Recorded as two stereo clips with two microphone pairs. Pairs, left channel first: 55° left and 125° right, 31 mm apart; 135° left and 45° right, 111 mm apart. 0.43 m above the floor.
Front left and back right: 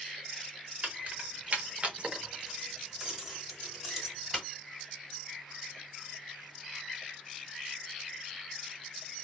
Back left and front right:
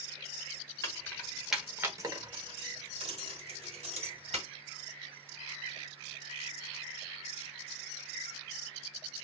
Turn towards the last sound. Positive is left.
turn(degrees=-35)